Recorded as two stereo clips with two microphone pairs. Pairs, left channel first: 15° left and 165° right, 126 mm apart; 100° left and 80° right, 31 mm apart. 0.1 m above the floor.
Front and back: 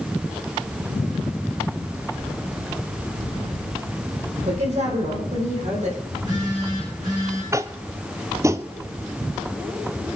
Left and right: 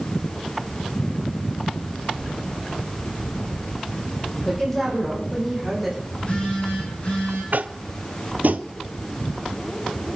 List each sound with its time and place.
4.5 s a woman speaking: 175° left, 5 m; by 6.0 s 175° right, 5.5 m
6.1 s a phone buzzing: 140° left, 6.5 m
7.5 s tapping: 100° right, 0.6 m